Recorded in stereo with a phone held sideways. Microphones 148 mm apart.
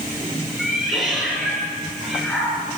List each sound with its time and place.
0.6 s a cat meowing: centre (ahead or behind), 6.5 m